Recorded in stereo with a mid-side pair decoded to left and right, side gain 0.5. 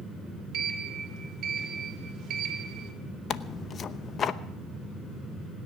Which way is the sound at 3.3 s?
50° left.